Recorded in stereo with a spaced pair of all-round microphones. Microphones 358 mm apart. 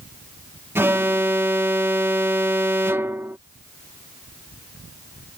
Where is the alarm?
5° right (ahead or behind).